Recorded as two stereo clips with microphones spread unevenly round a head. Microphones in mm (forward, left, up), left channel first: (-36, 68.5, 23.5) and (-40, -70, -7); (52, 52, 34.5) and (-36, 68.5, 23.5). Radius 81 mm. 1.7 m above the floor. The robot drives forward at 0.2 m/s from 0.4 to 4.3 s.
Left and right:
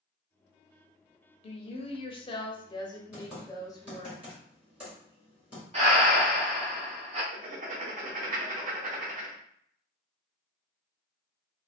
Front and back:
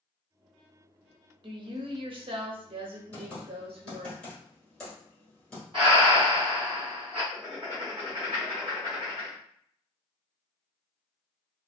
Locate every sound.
1.4 s a woman speaking: 135° left, 0.6 m; by 4.1 s 155° left, 1.1 m
3.1 s typing on a keyboard: 15° left, 1.5 m; by 5.6 s 20° left, 1.4 m
5.7 s breathing: 135° right, 0.9 m
7.3 s writing: 125° right, 0.7 m